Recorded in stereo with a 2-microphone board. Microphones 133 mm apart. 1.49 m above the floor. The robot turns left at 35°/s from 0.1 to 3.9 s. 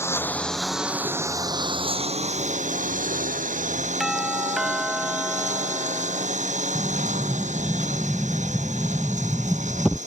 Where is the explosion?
Centre (ahead or behind).